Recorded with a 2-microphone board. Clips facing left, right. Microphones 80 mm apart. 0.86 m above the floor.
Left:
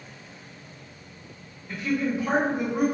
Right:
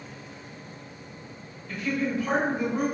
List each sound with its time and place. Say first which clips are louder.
1.7 s a woman speaking: left 2 dB; 20° left (ahead or behind), 1.0 m